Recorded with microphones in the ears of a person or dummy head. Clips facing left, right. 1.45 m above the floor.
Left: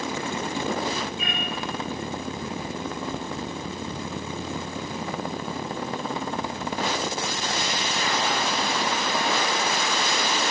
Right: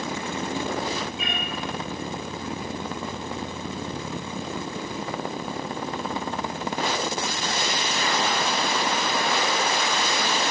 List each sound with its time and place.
1.2 s a cat meowing: 65° right (ahead or behind), 5 m